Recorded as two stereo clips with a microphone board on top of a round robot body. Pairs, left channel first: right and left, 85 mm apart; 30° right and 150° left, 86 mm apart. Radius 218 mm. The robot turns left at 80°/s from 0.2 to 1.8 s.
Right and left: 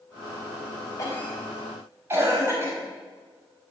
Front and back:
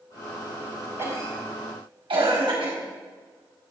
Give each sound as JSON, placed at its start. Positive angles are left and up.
{"t": 1.0, "sound": "a cough", "azimuth_deg": -145, "distance_m": 5.0}